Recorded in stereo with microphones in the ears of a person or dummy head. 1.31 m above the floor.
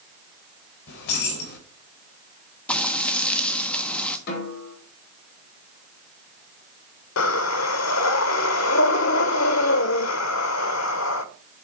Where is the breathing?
75° left (ahead or behind), 1.0 m.